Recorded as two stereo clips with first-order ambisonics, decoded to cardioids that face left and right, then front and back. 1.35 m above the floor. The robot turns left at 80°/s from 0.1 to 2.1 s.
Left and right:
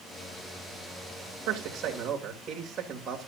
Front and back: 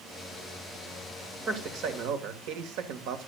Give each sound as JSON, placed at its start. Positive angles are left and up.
{"t": 1.5, "sound": "a man speaking", "azimuth_deg": -110, "distance_m": 2.0}